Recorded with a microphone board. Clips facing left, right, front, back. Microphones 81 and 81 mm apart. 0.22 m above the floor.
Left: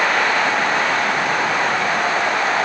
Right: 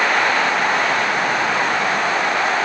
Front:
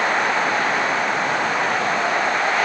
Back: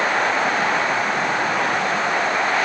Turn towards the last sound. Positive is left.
No sound to turn to.